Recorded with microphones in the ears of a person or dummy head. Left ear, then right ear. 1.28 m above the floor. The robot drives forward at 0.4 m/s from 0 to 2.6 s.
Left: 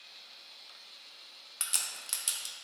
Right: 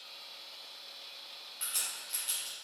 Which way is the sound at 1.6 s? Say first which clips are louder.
Left 3 dB; 60° left (ahead or behind).